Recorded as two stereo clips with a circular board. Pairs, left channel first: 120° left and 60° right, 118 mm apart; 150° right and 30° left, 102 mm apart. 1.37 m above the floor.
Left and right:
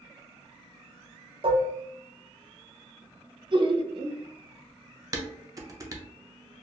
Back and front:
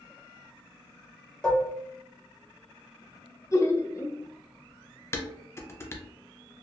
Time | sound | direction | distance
1.4 | dishes clattering | 70° right | 0.6 m
3.5 | laughter | 95° right | 0.5 m
5.1 | dishes clattering | 100° right | 0.5 m